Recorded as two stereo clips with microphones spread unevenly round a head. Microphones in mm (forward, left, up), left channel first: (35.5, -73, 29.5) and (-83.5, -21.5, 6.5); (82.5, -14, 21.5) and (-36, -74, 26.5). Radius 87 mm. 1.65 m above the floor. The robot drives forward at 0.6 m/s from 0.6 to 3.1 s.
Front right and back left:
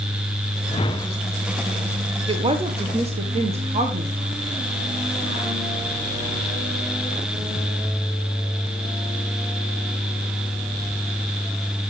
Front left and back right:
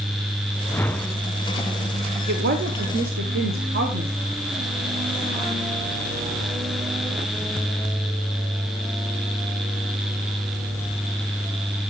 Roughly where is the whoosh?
Ahead right.